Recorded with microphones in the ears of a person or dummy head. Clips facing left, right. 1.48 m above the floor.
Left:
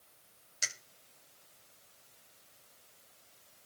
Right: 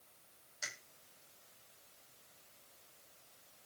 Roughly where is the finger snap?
Left.